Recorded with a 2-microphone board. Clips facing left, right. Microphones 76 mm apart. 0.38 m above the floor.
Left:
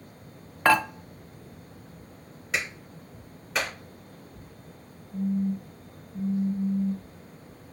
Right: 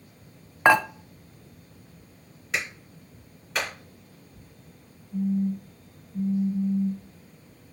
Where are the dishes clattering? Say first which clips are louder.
Right 2 dB; 20° right (ahead or behind), 0.7 m.